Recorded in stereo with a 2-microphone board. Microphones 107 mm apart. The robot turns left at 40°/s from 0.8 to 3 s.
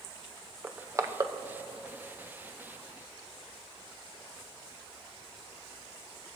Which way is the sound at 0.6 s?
20° right (ahead or behind).